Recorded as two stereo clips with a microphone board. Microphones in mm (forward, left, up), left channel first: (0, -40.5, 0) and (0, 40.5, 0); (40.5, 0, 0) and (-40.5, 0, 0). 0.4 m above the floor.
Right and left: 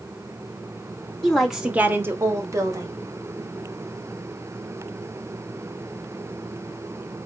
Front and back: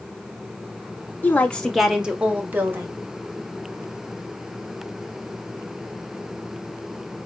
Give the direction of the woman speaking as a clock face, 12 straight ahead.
1 o'clock.